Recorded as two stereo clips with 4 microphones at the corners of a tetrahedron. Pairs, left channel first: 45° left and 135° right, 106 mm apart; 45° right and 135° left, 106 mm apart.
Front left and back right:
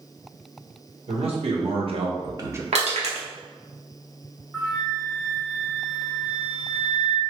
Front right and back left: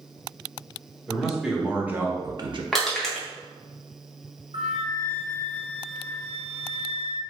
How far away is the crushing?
About 0.9 m.